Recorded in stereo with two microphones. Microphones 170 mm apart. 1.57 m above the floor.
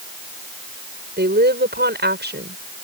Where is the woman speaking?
85° right.